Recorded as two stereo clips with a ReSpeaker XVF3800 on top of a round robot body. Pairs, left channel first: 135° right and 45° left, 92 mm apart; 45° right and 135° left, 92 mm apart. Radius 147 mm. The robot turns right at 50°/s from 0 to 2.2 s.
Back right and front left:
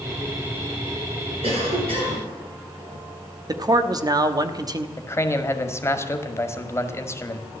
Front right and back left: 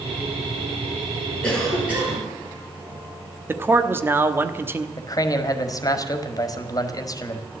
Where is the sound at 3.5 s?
75° left, 1.3 m.